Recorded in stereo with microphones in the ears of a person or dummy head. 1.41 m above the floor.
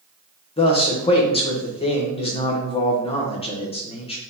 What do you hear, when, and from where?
0.6 s a man speaking: 30° left (ahead or behind), 1.0 m